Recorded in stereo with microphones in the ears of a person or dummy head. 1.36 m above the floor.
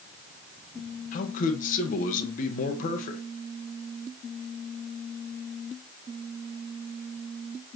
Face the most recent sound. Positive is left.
turn(degrees=50)  # may be behind; listen again after turning